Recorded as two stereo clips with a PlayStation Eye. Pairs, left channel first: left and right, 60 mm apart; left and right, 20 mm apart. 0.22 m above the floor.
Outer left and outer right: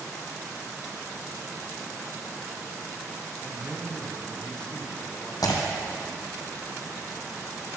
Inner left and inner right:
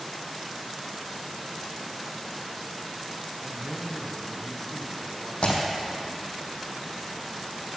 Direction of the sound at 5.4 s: 75° left (ahead or behind).